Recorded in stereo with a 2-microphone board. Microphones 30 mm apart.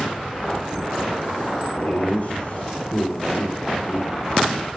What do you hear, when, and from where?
1.8 s laughter: 60° left (ahead or behind), 2.0 m